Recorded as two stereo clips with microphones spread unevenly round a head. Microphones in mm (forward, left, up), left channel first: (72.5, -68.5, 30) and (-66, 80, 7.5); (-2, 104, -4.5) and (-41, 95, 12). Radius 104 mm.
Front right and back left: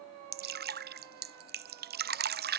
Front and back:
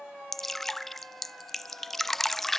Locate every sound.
0.3 s dripping: 90° left